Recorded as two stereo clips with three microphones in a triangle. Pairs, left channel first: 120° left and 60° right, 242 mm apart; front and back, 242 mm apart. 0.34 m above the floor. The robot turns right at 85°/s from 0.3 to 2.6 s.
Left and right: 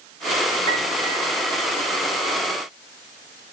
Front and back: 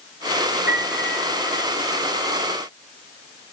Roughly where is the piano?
Behind.